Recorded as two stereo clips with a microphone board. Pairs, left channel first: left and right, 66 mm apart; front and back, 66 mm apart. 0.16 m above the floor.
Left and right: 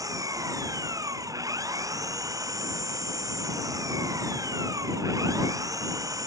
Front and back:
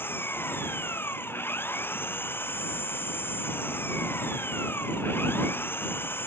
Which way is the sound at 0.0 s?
55° right.